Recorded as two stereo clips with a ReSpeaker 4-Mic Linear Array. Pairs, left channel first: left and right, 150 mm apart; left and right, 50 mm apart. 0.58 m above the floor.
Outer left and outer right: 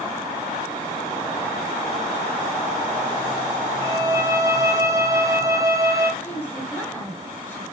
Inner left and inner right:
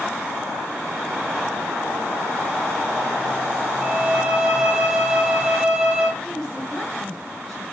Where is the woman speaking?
10° left (ahead or behind), 7 m.